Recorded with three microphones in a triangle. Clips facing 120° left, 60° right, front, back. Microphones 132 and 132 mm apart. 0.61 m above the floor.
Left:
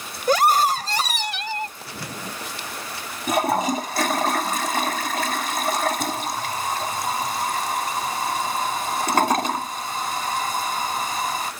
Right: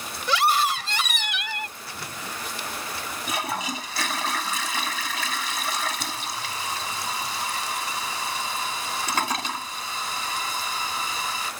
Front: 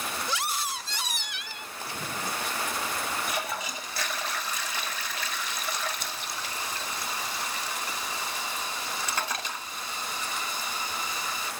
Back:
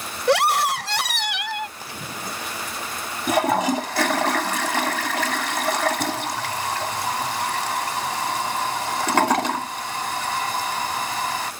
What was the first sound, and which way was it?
A scream, 165° left.